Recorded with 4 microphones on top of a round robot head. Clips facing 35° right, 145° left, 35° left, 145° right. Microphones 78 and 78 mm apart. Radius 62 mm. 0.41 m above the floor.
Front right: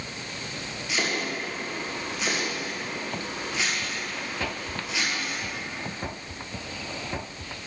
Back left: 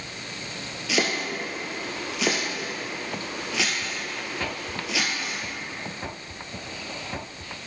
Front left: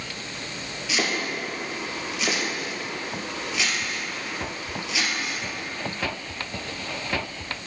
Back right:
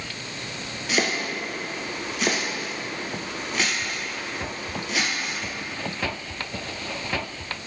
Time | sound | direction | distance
0.9 | chopping | 165° left | 1.7 m